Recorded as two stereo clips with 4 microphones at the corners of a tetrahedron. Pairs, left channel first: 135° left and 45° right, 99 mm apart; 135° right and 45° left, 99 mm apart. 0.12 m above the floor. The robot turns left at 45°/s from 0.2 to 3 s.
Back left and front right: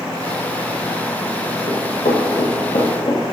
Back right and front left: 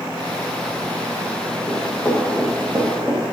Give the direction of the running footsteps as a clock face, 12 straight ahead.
6 o'clock.